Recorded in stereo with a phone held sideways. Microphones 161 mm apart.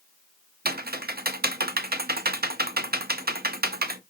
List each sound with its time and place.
0.7 s typing on a keyboard: 80° right, 0.6 m